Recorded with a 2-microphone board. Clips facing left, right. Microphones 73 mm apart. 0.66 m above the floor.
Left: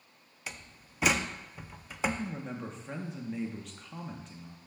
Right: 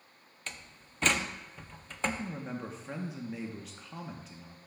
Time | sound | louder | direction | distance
0.5 | a door slam | left 1 dB | 10° left (ahead or behind) | 0.5 m
2.0 | a man speaking | left 1 dB | 5° right (ahead or behind) | 0.8 m